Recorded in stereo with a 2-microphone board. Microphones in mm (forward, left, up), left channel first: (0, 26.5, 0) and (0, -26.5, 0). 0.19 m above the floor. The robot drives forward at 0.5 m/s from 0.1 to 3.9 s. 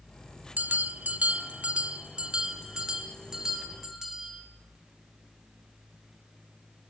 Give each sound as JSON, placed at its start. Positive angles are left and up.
{"t": 0.6, "sound": "a bell", "side_deg": -30, "distance_m": 0.5}